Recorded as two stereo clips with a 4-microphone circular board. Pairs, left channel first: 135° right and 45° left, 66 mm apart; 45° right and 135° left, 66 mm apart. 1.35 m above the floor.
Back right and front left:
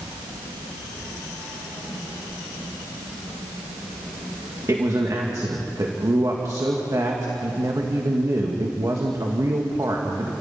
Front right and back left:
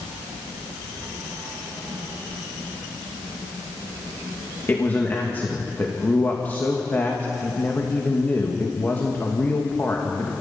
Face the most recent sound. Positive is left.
turn(degrees=15)